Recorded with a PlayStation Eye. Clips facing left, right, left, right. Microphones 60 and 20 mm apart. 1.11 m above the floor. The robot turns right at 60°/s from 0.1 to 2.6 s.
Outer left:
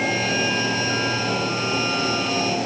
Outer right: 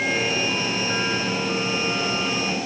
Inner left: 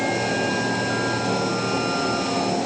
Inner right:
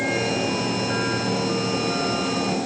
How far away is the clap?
I don't hear a clap.